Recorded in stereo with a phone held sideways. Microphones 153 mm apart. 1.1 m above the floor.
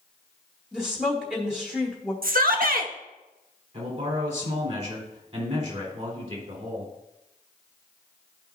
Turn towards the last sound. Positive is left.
turn(degrees=-50)  # may be behind; listen again after turning